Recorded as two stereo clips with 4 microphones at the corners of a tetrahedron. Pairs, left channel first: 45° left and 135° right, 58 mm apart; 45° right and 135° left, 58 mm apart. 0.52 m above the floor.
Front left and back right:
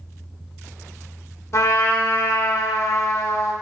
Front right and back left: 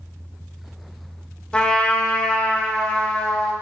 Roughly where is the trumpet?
Ahead.